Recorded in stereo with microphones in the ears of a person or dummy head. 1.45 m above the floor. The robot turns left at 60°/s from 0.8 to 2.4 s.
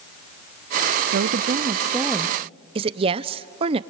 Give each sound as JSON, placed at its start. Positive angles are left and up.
{"t": 1.1, "sound": "a woman speaking", "azimuth_deg": -110, "distance_m": 0.6}
{"t": 2.8, "sound": "a woman speaking", "side_deg": -30, "distance_m": 0.7}